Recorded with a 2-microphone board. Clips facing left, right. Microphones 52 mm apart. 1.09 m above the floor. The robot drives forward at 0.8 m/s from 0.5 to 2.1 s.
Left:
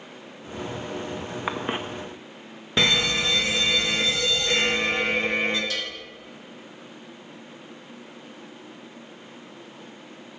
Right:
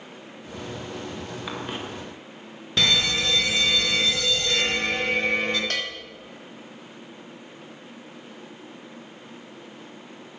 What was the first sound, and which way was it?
A cough, 35° left (ahead or behind).